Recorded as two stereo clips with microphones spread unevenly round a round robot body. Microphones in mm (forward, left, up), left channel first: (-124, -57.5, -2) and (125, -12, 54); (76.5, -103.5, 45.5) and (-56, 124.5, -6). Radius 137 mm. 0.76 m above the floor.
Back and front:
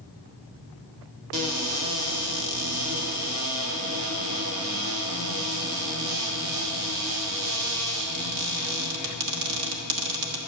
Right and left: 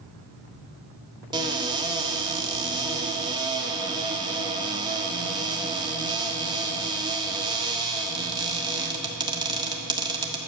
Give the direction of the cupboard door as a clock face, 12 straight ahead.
10 o'clock.